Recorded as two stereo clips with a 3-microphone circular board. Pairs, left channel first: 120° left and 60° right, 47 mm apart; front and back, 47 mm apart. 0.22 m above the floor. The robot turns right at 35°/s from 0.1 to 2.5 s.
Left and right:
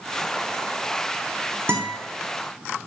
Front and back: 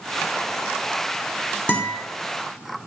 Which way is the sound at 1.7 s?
55° right.